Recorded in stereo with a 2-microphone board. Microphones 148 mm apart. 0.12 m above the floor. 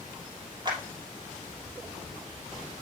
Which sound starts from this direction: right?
A clap, at 0.7 s.